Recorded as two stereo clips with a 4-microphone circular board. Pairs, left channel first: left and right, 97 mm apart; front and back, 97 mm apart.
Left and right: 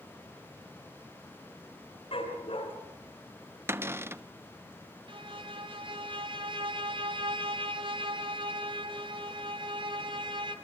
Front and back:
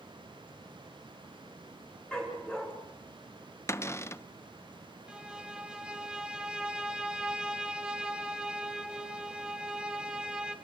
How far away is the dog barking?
About 5.5 m.